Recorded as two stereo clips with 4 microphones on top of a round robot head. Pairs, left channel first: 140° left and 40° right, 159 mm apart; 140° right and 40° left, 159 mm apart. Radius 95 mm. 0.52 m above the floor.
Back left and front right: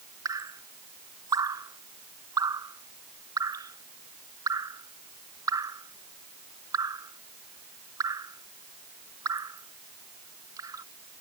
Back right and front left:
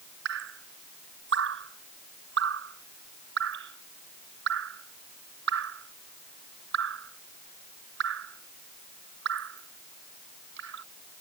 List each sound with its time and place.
0.2 s dripping: 30° left